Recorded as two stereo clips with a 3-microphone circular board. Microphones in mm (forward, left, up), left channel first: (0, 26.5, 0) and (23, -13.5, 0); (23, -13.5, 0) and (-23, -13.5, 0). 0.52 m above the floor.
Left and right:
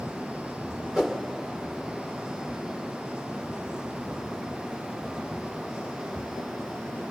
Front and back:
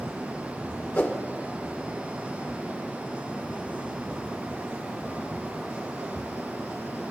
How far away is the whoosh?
About 2.0 m.